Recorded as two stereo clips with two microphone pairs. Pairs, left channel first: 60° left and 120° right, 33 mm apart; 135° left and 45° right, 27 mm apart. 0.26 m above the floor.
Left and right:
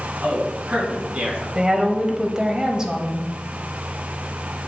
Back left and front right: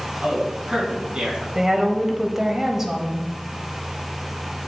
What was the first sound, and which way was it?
A man speaking, 105° right.